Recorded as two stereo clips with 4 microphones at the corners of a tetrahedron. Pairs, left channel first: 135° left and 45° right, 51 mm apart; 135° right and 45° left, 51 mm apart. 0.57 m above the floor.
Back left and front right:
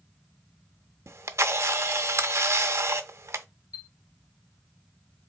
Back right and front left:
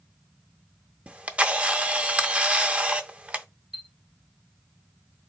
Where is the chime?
130° left, 0.6 m.